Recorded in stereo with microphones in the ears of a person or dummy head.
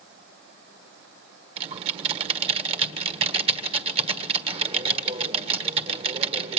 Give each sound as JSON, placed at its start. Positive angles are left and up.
{"t": 1.6, "sound": "typing on a keyboard", "side_deg": -30, "distance_m": 1.6}